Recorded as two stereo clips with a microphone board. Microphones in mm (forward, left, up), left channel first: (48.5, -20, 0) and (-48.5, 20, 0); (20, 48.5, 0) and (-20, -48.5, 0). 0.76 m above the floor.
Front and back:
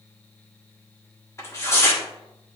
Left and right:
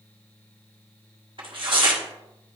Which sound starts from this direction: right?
Tearing paper, at 1.4 s.